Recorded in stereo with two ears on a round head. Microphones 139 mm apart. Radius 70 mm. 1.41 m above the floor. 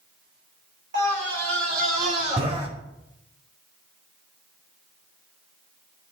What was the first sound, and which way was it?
A scream, 85° right.